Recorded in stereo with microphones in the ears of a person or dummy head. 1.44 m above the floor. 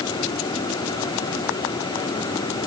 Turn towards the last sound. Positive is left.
No sound to turn to.